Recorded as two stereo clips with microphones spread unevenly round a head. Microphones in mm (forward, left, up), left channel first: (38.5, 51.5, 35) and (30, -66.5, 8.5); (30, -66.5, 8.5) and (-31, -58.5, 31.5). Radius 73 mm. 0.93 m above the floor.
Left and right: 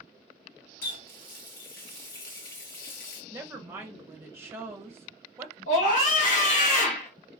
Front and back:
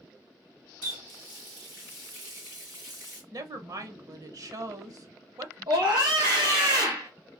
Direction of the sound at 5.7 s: 115° left.